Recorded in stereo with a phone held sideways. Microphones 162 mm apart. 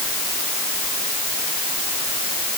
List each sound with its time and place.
Only background noise.